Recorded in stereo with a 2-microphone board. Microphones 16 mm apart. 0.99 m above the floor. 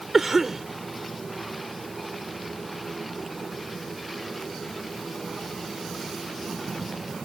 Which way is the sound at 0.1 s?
10° right (ahead or behind).